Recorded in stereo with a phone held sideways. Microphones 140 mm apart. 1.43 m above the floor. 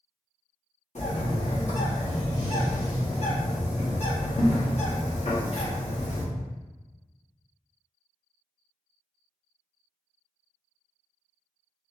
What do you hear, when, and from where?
0.9 s a bird: 55° left (ahead or behind), 1.3 m